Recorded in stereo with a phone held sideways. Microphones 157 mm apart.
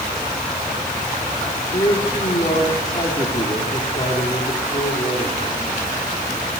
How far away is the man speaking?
About 2.5 m.